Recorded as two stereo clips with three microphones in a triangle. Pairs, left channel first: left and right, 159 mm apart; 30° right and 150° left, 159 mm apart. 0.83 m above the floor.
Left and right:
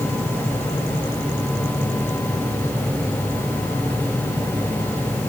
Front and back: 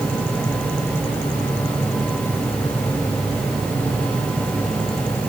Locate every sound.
Only background noise.